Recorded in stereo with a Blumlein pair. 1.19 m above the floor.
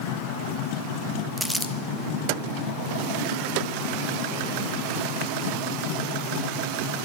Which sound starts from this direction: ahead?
Crumpling, at 1.4 s.